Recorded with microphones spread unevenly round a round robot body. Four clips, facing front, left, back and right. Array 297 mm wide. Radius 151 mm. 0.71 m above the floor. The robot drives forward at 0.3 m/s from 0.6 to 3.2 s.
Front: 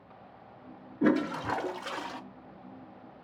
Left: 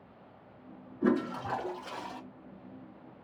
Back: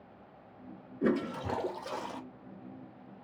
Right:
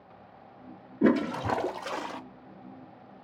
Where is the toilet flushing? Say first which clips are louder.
Right 5 dB, front 4 dB; 75° right, 0.7 m; by 2.2 s 110° right, 0.7 m.